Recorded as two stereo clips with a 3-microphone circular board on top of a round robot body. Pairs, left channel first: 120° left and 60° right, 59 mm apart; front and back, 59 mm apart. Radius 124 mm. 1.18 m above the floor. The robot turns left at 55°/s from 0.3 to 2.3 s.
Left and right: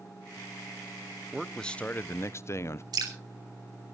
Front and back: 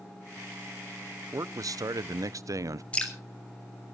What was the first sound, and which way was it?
A man speaking, 145° right.